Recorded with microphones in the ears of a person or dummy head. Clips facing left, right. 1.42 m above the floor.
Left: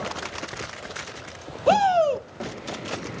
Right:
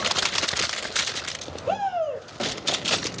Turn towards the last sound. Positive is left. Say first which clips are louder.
# left 7 dB
turn(degrees=70)  # may be behind; listen again after turning